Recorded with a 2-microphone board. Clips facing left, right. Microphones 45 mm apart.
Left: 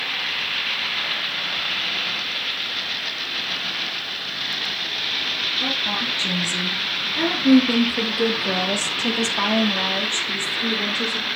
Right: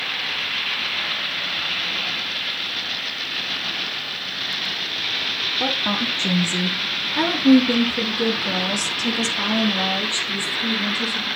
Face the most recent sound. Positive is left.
turn(degrees=40)  # may be behind; listen again after turning